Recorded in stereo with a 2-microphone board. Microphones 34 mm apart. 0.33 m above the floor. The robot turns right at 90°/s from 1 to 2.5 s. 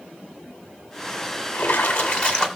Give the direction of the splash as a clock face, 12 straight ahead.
10 o'clock.